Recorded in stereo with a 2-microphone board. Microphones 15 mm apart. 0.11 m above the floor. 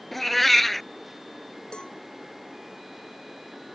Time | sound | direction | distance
0.1 | a cat meowing | 10° left (ahead or behind) | ?
1.7 | a cowbell | 75° left (ahead or behind) | ?